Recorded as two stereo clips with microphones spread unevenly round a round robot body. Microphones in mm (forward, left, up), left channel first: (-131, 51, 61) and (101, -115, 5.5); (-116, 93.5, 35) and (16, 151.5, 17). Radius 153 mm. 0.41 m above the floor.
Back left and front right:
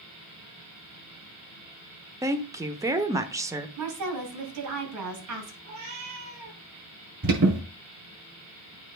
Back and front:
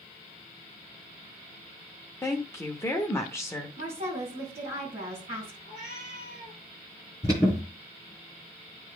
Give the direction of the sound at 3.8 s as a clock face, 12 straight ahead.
1 o'clock.